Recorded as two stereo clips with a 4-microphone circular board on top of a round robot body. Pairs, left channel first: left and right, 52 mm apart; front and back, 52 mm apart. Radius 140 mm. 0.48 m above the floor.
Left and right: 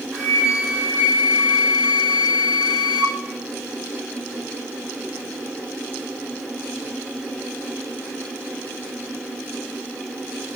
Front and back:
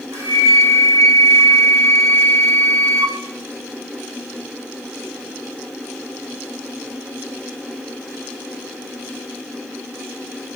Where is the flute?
160° right, 3 m.